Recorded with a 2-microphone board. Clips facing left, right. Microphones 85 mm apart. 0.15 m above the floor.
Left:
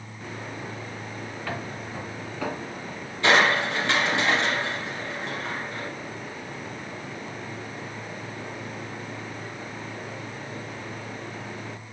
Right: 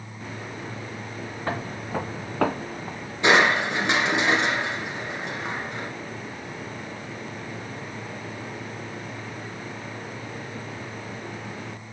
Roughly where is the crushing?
Right.